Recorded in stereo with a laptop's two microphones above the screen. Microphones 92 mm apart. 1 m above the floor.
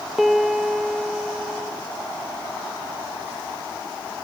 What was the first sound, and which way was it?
A piano, 5° right (ahead or behind).